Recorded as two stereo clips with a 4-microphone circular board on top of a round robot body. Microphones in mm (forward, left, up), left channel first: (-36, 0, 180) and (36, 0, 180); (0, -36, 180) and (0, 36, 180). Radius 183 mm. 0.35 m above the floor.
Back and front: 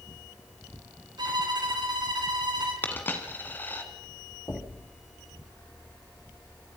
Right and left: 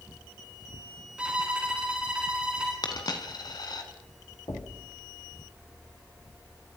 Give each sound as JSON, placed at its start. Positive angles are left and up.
{"t": 1.2, "sound": "a violin", "azimuth_deg": 15, "distance_m": 5.0}
{"t": 2.8, "sound": "a dropped coin", "azimuth_deg": -115, "distance_m": 3.0}
{"t": 4.5, "sound": "knocking", "azimuth_deg": -120, "distance_m": 4.0}